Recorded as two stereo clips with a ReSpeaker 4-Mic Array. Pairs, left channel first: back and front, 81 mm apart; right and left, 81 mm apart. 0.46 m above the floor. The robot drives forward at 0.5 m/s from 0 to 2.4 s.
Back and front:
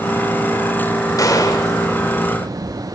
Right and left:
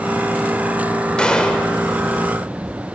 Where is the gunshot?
165° right, 1.8 m.